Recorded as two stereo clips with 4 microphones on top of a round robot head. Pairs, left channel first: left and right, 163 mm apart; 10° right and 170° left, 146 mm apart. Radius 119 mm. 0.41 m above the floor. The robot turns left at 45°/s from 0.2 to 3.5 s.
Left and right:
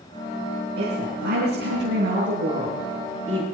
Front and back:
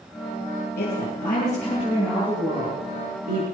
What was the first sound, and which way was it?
A woman speaking, 55° right.